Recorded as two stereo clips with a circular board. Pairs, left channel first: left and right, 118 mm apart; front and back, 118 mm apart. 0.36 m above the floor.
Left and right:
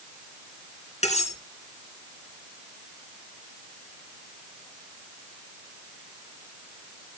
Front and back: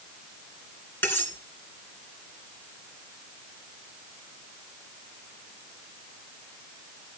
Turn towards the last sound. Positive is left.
turn(degrees=70)